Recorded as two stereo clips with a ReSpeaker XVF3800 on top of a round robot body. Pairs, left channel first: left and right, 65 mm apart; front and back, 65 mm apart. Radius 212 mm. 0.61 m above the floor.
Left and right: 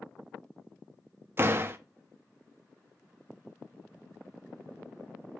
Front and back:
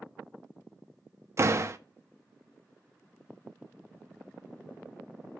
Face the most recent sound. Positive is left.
turn(degrees=-140)